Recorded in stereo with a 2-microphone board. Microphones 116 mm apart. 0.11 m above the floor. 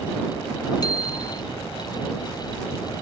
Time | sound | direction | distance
0.8 | a bicycle bell | 35° left (ahead or behind) | ?